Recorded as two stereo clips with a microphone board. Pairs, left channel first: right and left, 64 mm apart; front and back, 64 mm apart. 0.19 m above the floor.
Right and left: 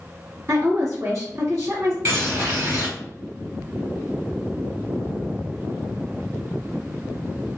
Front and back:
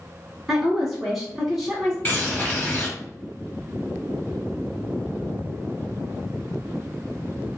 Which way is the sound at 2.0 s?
55° left.